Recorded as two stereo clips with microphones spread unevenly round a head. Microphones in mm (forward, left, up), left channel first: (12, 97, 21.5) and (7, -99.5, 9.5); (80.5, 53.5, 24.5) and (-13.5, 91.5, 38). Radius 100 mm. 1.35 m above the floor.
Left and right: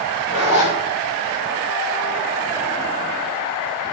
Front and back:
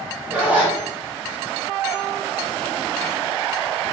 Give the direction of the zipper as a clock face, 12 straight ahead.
9 o'clock.